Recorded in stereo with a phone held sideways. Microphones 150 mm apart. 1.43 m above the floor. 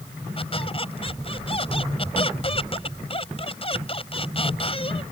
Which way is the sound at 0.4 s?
40° left (ahead or behind).